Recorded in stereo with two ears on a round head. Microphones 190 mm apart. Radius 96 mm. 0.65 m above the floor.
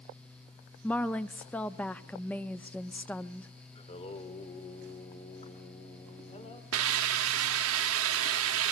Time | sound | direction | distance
0.8 | a woman speaking | 5° left (ahead or behind) | 0.5 m
3.8 | singing | 30° left (ahead or behind) | 1.8 m
6.7 | a hiss | 70° right (ahead or behind) | 0.9 m